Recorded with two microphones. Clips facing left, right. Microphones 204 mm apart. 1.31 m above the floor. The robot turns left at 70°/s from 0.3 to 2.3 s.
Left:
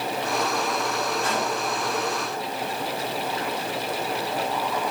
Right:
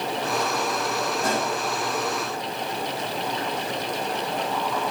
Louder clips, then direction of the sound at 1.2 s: Right 1 dB; 45° right (ahead or behind).